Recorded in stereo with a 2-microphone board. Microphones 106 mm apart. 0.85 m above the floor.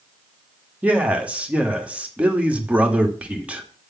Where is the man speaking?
10° right (ahead or behind), 1.9 m.